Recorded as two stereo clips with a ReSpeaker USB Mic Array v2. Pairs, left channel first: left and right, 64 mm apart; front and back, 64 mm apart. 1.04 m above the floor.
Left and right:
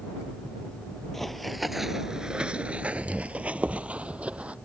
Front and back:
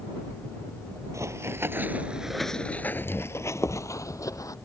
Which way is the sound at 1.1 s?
175° left.